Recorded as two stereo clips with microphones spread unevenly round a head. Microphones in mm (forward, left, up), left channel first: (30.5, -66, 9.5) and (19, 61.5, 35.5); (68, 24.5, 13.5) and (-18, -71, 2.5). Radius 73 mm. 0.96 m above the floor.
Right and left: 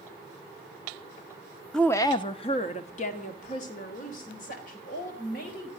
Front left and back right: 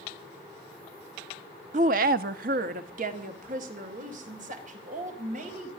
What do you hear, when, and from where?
1.7 s a woman speaking: 165° right, 0.7 m; by 5.7 s 105° right, 5 m